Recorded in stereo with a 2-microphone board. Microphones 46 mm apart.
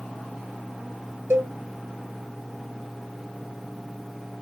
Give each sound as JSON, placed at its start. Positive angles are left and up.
{"t": 1.3, "sound": "a cowbell", "side_deg": -80, "distance_m": 0.6}